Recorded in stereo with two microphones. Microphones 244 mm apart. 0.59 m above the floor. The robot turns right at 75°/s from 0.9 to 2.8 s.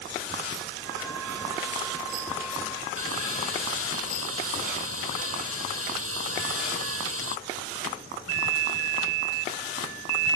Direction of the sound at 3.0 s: 70° right (ahead or behind).